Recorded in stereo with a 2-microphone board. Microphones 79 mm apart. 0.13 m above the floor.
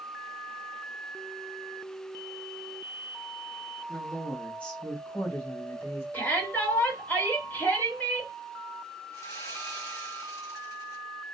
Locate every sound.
3.9 s a woman speaking: 5° left (ahead or behind), 1.1 m; by 6.0 s 30° left (ahead or behind), 1.2 m
6.1 s a shout: 25° left (ahead or behind), 1.9 m
9.1 s sawing: 40° left (ahead or behind), 1.9 m